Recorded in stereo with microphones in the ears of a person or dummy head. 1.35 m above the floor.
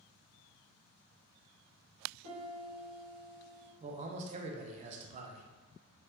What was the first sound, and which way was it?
A piano, 85° right.